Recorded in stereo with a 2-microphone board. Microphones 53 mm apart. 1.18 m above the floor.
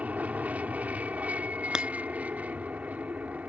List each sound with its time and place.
0.0 s an aircraft: 25° right (ahead or behind)
1.7 s breaking glass: 15° right (ahead or behind)